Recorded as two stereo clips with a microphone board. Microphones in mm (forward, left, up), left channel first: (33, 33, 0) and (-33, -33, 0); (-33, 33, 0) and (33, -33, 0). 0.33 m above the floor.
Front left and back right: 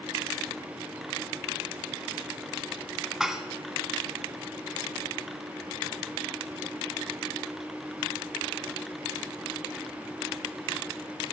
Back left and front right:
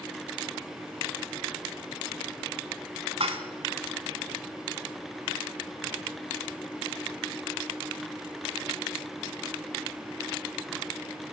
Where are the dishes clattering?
50° right, 2 m.